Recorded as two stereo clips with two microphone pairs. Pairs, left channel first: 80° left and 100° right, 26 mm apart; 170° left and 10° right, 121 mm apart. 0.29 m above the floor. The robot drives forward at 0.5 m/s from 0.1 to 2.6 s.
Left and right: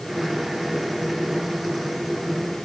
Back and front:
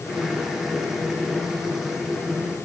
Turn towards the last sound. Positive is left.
No sound to turn to.